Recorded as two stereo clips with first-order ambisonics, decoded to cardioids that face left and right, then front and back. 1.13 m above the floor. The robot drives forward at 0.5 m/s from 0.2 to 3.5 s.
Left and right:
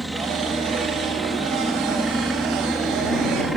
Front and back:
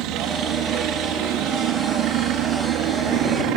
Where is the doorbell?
No doorbell in this recording.